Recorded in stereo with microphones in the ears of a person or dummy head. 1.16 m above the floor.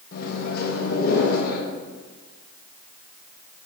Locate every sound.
0.1 s a microwave: 50° left (ahead or behind), 1.2 m